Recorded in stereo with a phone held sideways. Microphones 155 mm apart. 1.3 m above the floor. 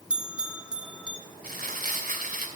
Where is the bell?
5° right (ahead or behind), 1.2 m.